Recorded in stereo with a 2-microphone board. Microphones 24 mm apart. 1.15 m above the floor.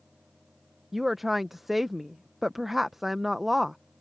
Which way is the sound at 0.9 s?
10° right (ahead or behind).